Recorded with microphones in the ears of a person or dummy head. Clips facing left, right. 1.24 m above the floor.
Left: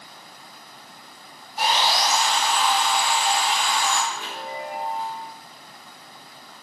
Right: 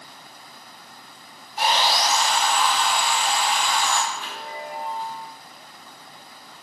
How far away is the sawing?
About 1.0 m.